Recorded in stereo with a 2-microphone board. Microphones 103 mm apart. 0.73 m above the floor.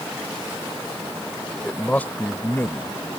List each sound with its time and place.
1.6 s a man speaking: 10° left (ahead or behind); by 3.1 s 30° left (ahead or behind)